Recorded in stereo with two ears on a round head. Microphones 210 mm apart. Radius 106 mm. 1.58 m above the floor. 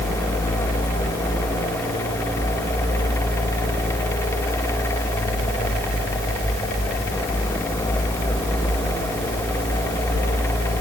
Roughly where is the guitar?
No guitar in this recording.